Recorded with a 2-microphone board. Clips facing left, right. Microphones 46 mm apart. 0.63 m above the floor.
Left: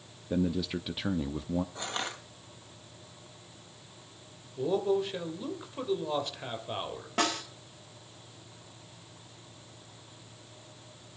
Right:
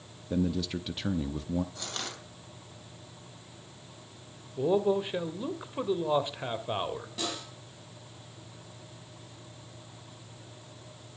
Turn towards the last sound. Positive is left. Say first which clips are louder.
# left 9 dB
turn(degrees=55)  # may be behind; listen again after turning